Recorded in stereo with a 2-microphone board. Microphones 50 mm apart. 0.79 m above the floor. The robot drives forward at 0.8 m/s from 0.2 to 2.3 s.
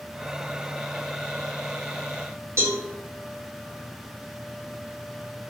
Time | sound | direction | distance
2.6 | a cowbell | 55° right (ahead or behind) | 2 m